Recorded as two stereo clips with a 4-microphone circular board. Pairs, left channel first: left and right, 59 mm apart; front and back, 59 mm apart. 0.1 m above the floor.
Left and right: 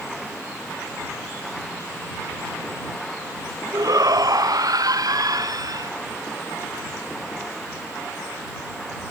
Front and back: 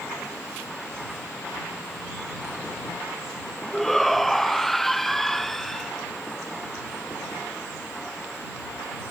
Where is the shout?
85° right.